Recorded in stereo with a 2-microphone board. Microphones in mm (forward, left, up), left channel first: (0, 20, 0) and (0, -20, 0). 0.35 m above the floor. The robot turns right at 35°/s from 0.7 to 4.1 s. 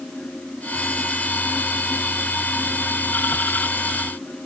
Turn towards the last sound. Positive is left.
No sound to turn to.